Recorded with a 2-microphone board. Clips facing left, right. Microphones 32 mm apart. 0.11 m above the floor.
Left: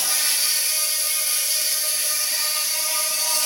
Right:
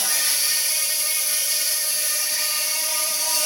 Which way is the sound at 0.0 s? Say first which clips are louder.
Even; 50° left (ahead or behind).